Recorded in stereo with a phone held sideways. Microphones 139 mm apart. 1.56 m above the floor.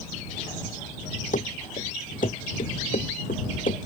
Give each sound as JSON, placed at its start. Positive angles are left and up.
{"t": 1.3, "sound": "running footsteps", "side_deg": 65}